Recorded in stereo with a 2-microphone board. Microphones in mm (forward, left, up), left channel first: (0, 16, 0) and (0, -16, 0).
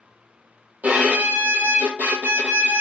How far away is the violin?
About 0.9 m.